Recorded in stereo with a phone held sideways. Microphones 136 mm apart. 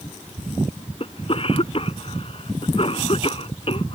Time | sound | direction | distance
1.0 | a cough | 45° left (ahead or behind) | ?